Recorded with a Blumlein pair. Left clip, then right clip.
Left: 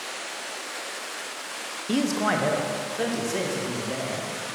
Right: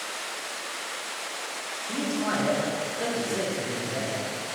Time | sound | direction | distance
1.9 | a man speaking | 35° left | 0.8 m